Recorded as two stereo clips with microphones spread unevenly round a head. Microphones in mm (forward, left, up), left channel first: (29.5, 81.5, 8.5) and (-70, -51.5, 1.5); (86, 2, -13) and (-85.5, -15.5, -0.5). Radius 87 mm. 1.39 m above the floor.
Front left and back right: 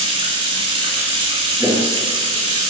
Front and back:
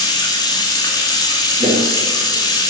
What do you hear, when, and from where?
0.0 s running water: 60° right, 2.5 m
1.6 s footsteps: 145° left, 1.7 m